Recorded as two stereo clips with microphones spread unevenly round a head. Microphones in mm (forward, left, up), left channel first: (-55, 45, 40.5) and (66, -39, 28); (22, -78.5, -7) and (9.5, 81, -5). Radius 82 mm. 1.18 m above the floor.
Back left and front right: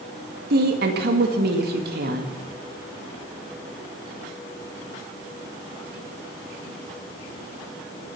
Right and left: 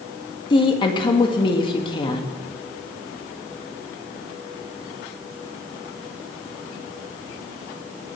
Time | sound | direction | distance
0.5 | a woman speaking | 25° right | 1.7 m